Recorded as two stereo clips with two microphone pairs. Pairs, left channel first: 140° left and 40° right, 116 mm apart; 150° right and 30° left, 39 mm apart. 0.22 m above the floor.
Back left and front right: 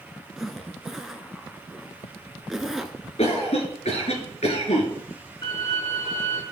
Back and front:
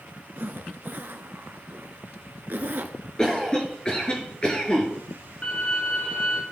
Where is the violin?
175° left, 2.5 m.